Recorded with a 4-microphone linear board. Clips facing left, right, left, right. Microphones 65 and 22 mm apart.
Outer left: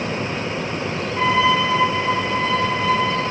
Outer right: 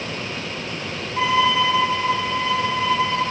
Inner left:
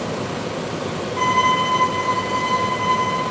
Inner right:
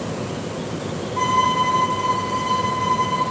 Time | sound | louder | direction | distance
1.2 | a violin | outer left 1 dB, inner left 1 dB | 10° right (ahead or behind) | 1.9 m